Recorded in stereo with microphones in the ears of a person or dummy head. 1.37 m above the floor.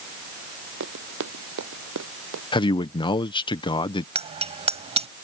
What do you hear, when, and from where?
0.8 s running footsteps: 70° right (ahead or behind)
2.5 s a man speaking: 20° left (ahead or behind)
4.2 s a bicycle bell: 30° right (ahead or behind)